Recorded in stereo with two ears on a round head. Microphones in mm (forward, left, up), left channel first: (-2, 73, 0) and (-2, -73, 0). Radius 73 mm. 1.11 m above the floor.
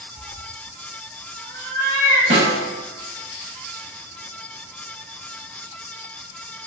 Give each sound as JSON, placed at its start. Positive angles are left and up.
{"t": 0.1, "sound": "a cat meowing", "side_deg": 5, "distance_m": 0.8}
{"t": 2.3, "sound": "a snare drum", "side_deg": -35, "distance_m": 1.0}